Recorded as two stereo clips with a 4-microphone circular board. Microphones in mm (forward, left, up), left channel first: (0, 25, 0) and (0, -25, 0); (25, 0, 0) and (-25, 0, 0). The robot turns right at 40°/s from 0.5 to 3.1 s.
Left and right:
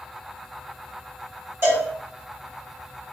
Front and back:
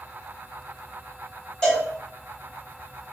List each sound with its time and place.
1.6 s a cowbell: 75° right, 1.4 m; by 1.9 s 65° right, 1.4 m